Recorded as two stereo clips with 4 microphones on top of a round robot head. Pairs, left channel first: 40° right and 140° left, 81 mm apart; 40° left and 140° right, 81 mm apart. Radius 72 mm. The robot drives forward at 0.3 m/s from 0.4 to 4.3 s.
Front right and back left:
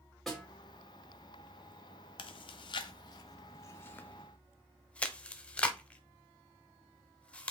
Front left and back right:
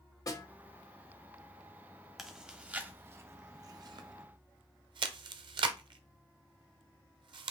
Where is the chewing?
55° right, 0.7 m; by 7.5 s 115° right, 0.6 m.